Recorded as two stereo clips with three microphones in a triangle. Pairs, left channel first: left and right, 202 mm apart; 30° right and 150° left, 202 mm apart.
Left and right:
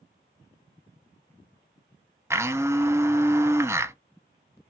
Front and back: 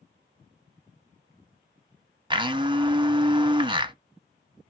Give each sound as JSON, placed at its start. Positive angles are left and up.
{"t": 2.3, "sound": "a blender", "azimuth_deg": -160, "distance_m": 0.6}